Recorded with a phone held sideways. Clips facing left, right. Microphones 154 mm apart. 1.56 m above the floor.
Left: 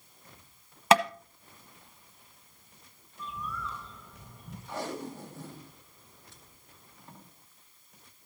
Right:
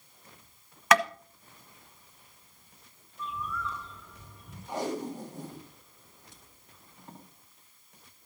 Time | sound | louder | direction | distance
0.9 | tapping | left 2 dB | 30° left (ahead or behind) | 1.0 m
3.2 | a bird | right 3 dB | 35° left (ahead or behind) | 6 m
4.7 | tape being pulled | right 4 dB | 15° right (ahead or behind) | 2 m